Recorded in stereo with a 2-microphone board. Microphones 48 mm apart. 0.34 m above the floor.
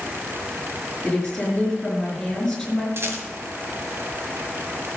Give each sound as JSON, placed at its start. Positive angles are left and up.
{"t": 1.0, "sound": "a woman speaking", "side_deg": 5, "distance_m": 5.0}
{"t": 3.0, "sound": "a rattle", "side_deg": -60, "distance_m": 2.0}